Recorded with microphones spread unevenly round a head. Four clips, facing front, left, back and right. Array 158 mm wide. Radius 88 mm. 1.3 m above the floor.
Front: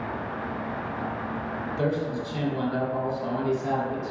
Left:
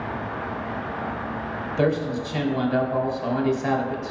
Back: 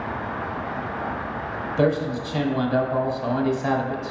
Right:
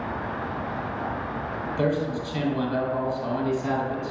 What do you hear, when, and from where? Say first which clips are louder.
1.8 s a man speaking: left 3 dB, back 6 dB; 155° left, 2.5 m